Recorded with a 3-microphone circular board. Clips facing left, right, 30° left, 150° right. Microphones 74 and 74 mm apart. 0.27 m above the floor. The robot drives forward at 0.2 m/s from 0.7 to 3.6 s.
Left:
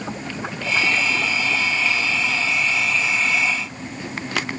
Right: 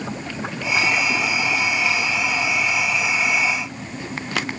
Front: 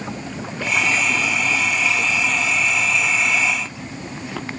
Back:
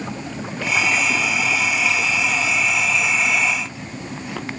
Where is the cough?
No cough in this recording.